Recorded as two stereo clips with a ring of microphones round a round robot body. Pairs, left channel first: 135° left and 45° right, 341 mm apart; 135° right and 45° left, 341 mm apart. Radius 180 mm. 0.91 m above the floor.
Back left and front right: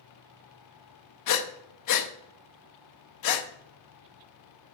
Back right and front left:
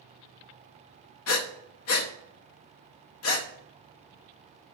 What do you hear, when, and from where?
1.3 s breathing: 175° left, 0.8 m